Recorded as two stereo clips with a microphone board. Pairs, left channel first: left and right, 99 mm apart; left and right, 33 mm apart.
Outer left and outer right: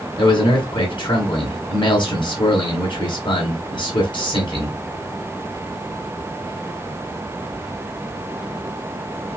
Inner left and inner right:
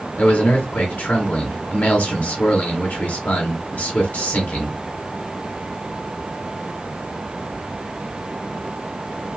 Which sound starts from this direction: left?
A man speaking, at 0.2 s.